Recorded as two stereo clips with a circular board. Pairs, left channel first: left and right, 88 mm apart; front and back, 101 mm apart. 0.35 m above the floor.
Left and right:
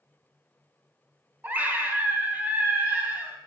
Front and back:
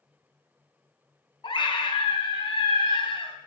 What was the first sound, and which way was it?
A scream, 20° right.